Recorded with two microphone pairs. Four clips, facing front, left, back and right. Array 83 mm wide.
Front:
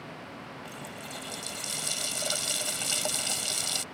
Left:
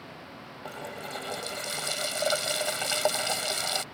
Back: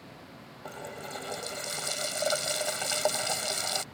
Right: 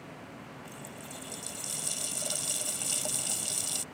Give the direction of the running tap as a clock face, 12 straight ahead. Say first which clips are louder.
Left 7 dB, back 1 dB; 8 o'clock.